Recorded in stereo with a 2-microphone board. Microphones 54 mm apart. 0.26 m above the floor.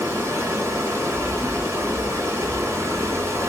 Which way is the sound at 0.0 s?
60° right (ahead or behind).